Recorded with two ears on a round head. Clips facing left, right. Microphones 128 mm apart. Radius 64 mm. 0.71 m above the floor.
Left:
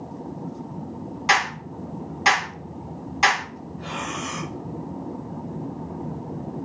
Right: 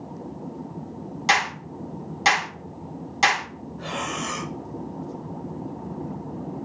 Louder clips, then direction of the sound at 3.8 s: Right 1 dB; 60° right (ahead or behind).